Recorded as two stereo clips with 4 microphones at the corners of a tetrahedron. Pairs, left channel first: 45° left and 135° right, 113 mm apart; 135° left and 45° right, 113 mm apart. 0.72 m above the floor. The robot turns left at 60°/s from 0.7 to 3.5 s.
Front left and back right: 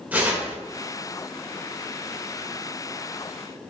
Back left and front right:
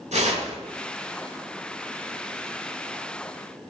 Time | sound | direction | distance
0.1 | tearing paper | 60° right | 1.8 m